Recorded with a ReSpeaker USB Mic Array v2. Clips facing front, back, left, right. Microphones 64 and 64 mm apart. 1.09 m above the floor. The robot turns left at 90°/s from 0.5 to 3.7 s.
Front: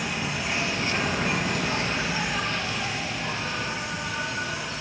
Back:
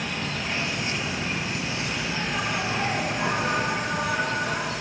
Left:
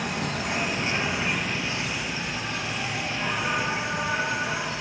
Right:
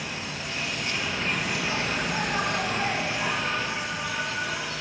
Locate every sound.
0.0 s an insect: 80° left, 1.5 m; by 4.8 s 150° left, 1.5 m